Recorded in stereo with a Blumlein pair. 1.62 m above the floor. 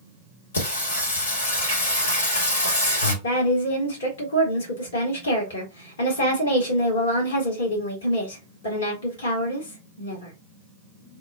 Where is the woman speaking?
65° left, 1.3 m.